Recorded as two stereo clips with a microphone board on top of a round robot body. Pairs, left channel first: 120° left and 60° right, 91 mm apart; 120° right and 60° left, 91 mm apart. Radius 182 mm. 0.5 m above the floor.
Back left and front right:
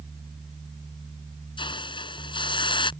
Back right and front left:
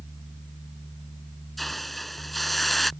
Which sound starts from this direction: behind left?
A hiss, at 1.6 s.